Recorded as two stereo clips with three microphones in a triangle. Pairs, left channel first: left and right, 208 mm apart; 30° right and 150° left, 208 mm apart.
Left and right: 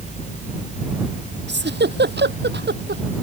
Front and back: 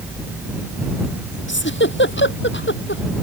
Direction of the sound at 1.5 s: 55° right.